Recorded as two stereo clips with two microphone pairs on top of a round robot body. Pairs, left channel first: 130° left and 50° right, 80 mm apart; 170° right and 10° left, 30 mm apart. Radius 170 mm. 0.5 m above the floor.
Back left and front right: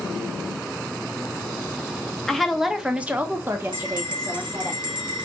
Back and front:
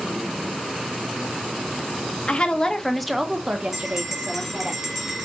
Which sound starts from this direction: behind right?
A woman speaking, at 2.3 s.